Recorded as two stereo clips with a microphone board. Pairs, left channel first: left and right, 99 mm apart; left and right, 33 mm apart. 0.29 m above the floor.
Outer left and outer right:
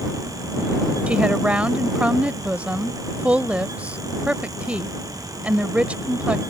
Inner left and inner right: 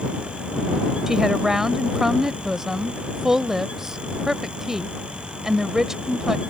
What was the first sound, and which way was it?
A woman speaking, 15° right (ahead or behind).